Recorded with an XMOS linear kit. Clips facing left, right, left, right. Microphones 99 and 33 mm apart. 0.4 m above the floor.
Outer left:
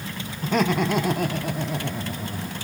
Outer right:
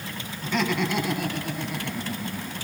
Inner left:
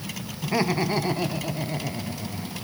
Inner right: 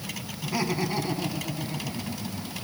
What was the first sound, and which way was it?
Laughter, 45° left (ahead or behind).